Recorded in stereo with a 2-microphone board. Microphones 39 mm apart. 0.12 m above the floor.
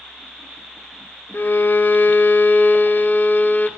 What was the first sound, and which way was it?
A violin, 50° left (ahead or behind).